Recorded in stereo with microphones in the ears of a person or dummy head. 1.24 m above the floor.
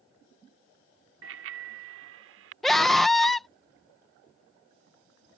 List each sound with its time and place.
1.2 s a bicycle bell: 85° right; by 2.5 s 80° right
2.6 s a scream: centre (ahead or behind)